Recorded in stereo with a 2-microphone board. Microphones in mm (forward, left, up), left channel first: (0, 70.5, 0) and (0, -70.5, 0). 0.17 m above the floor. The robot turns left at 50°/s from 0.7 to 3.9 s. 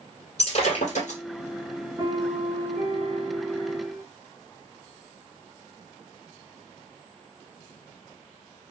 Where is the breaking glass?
50° left (ahead or behind), 1.7 m; by 1.2 s 65° left (ahead or behind), 1.7 m.